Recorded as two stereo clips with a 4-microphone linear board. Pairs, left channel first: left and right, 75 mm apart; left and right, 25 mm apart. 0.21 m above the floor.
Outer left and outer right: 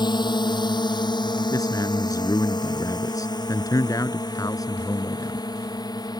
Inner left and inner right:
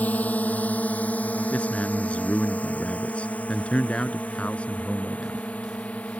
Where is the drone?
80° left; by 6.2 s 65° left (ahead or behind).